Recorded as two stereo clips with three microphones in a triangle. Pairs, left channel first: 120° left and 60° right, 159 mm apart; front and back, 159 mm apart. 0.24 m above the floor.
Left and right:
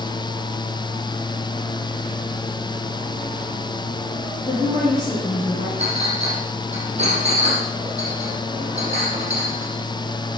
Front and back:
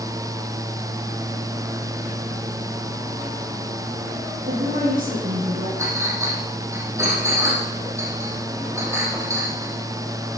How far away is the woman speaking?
About 7.5 m.